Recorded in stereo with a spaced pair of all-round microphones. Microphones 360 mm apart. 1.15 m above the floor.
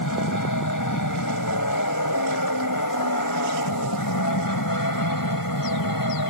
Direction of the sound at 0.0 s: 55° left (ahead or behind).